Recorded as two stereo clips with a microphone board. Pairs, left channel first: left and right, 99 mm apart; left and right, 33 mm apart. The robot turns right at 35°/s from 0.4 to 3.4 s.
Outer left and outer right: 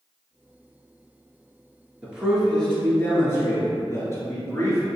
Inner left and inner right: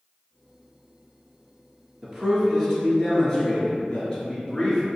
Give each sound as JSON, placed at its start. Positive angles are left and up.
{"t": 2.0, "sound": "a man speaking", "side_deg": -15, "distance_m": 1.8}